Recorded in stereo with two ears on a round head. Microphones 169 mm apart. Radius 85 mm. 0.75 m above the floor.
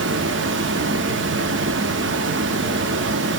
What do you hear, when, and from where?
0.0 s running water: 65° right (ahead or behind), 0.8 m